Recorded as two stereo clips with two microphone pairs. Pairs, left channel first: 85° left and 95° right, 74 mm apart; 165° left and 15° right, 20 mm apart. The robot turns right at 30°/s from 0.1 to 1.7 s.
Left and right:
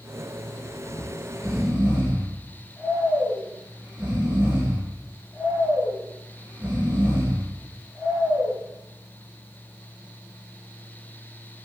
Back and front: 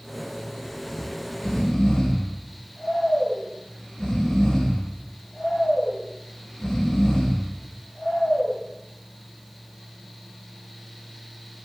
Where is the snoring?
175° left, 5.5 m; by 8.6 s 160° right, 5.5 m.